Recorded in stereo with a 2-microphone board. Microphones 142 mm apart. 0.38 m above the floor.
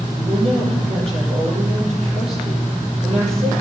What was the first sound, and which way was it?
A woman speaking, 45° right (ahead or behind).